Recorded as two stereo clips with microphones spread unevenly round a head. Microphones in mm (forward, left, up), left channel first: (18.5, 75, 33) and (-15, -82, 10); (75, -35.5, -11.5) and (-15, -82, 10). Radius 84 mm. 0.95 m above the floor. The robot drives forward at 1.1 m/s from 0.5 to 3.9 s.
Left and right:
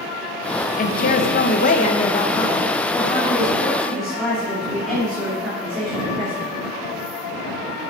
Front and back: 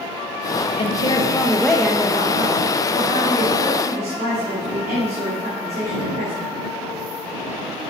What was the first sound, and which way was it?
A woman speaking, 40° left.